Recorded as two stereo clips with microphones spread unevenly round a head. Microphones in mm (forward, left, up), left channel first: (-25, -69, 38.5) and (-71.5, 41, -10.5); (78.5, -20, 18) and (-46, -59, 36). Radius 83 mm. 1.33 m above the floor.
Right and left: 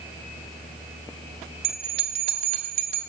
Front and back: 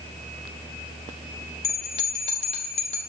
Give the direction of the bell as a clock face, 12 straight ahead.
10 o'clock.